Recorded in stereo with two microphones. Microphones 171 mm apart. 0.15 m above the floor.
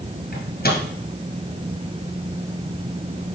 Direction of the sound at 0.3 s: 60° left (ahead or behind).